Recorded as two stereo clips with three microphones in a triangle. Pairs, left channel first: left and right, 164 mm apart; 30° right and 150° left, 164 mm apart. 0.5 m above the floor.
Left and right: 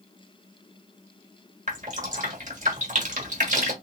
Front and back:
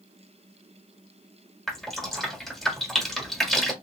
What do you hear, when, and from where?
1.7 s dripping: 120° right, 1.2 m